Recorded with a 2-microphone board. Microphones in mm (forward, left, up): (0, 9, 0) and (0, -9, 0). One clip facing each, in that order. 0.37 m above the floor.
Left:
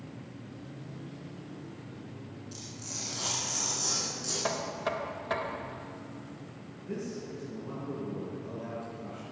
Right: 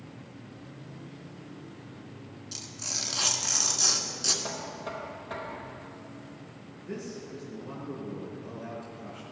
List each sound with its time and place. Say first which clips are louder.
2.5 s tearing paper: right 8 dB; 45° right (ahead or behind), 1.6 m
4.4 s knocking: left 4 dB; 40° left (ahead or behind), 0.8 m
6.8 s a man speaking: left 1 dB; centre (ahead or behind), 4 m